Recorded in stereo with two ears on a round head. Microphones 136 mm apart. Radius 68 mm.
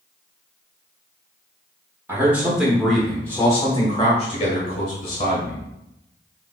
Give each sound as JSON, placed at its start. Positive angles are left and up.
{"t": 2.1, "sound": "a man speaking", "side_deg": -15, "distance_m": 1.2}